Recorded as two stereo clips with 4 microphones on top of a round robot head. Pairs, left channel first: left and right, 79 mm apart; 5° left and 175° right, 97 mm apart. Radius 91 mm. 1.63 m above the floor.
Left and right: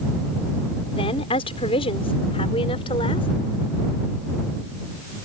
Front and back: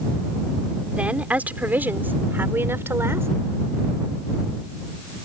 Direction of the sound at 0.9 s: 105° left.